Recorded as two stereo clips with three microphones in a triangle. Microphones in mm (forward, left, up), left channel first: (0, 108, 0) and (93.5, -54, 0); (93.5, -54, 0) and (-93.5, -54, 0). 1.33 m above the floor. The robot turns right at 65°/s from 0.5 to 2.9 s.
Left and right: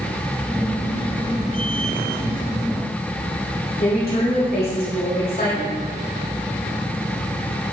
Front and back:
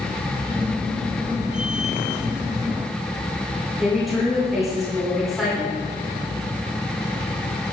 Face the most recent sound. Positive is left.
turn(degrees=90)